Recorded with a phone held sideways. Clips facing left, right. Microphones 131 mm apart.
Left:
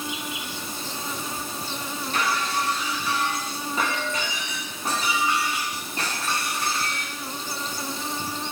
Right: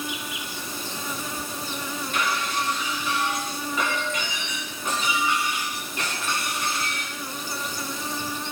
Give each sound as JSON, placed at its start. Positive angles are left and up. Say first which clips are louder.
{"t": 0.0, "sound": "an insect", "louder": "left 1 dB", "side_deg": 30, "distance_m": 2.5}
{"t": 2.1, "sound": "breaking glass", "louder": "left 2 dB", "side_deg": 35, "distance_m": 8.0}